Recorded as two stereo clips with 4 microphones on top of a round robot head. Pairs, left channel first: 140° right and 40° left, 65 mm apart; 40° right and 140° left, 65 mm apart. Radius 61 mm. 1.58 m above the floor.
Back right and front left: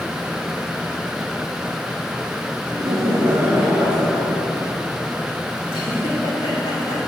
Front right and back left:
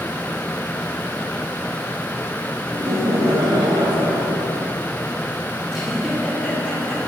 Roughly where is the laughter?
Left.